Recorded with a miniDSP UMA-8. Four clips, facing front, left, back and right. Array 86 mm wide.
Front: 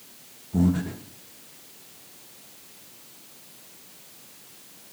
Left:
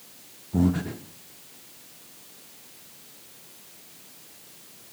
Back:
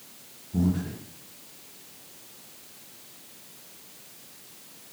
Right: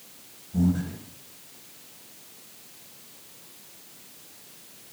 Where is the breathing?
70° left, 0.7 m.